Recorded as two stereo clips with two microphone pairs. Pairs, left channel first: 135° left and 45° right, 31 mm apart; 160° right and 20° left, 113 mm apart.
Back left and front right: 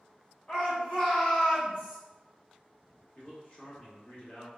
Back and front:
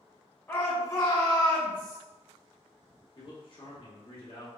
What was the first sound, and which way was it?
A shout, 135° left.